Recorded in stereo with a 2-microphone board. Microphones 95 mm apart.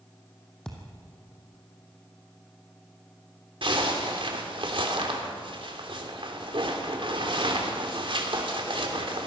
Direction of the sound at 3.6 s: 60° right (ahead or behind).